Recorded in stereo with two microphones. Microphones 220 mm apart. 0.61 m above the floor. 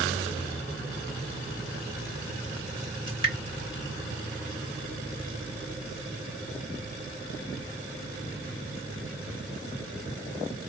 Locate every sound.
3.1 s dripping: 20° right (ahead or behind), 2 m